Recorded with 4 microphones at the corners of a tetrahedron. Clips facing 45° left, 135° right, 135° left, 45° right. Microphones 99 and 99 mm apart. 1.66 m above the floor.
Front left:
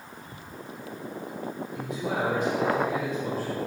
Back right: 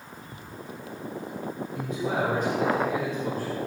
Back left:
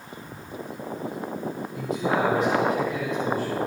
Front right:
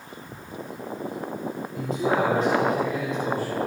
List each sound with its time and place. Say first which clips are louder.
1.7 s a man speaking: back right 2 dB, front right 1 dB; 90° right, 3 m; by 3.6 s 100° right, 5.5 m